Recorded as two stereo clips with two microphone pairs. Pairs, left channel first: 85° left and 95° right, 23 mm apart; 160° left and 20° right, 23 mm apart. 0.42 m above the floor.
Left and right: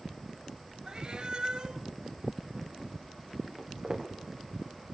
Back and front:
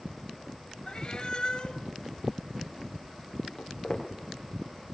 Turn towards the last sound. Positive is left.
turn(degrees=-145)